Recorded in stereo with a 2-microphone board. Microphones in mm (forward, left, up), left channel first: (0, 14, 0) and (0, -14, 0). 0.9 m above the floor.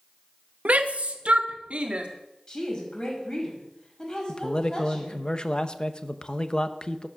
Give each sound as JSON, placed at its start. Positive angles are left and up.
{"t": 0.7, "sound": "a shout", "side_deg": -60, "distance_m": 0.9}
{"t": 2.5, "sound": "a woman speaking", "side_deg": 30, "distance_m": 5.0}
{"t": 4.3, "sound": "a man speaking", "side_deg": 35, "distance_m": 0.8}